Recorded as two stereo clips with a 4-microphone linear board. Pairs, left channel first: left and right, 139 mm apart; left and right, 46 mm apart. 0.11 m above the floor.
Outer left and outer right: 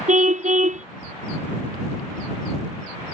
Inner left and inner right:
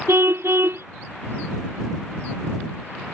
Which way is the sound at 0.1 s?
60° right (ahead or behind).